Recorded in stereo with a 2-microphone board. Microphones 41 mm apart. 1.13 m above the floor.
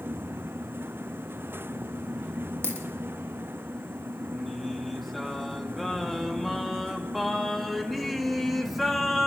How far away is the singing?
About 2 m.